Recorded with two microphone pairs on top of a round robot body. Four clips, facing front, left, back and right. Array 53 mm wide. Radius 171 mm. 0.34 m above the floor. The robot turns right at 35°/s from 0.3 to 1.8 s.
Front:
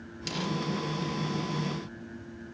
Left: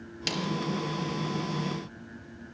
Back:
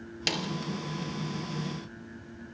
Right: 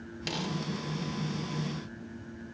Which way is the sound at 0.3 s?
170° left.